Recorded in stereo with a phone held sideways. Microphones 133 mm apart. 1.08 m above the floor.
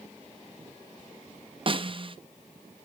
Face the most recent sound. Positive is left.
turn(degrees=-40)  # may be behind; listen again after turning